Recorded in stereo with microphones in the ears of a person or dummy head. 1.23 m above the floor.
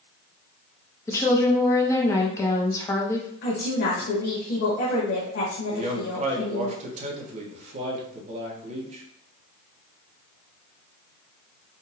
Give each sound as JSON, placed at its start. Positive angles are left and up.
{"t": 1.1, "sound": "a woman speaking", "side_deg": 20, "distance_m": 0.8}
{"t": 3.4, "sound": "a woman speaking", "side_deg": 55, "distance_m": 0.9}
{"t": 5.7, "sound": "a man speaking", "side_deg": -35, "distance_m": 1.0}